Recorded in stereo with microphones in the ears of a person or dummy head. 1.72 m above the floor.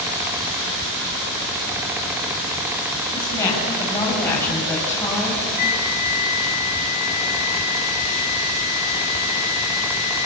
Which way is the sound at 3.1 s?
20° left (ahead or behind).